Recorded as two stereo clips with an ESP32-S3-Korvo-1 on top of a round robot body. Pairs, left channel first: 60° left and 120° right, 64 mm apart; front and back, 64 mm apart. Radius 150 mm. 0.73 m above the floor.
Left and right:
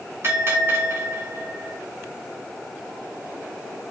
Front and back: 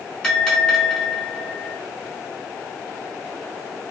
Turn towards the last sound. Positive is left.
turn(degrees=-75)